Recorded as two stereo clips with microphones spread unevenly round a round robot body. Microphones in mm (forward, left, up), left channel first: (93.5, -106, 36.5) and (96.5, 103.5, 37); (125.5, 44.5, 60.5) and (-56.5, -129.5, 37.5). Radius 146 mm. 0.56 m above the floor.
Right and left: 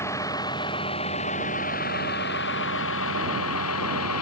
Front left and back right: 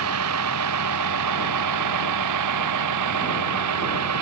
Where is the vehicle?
170° right; by 4.2 s 120° right.